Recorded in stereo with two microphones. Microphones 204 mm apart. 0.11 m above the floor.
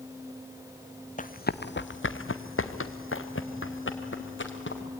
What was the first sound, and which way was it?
Running footsteps, 40° left (ahead or behind).